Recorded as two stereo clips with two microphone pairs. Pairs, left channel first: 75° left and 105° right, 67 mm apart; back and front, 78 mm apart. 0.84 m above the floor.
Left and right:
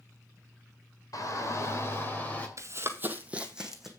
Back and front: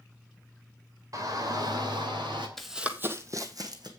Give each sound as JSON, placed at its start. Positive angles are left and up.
{"t": 1.1, "sound": "a shout", "azimuth_deg": 45, "distance_m": 2.5}
{"t": 2.6, "sound": "running footsteps", "azimuth_deg": -95, "distance_m": 1.2}